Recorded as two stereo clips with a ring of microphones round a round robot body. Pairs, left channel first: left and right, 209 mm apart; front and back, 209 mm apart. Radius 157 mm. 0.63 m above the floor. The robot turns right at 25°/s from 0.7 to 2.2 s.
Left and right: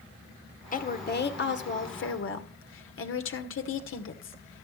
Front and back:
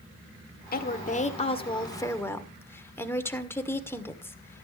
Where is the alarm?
No alarm in this recording.